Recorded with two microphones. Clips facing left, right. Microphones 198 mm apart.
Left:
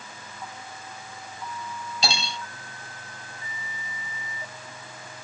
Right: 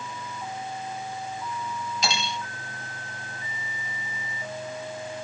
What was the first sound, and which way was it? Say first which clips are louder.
Cutlery clinking: left 1 dB; 30° left (ahead or behind).